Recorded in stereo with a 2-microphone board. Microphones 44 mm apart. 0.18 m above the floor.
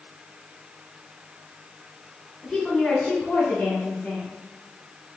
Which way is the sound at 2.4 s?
5° left (ahead or behind).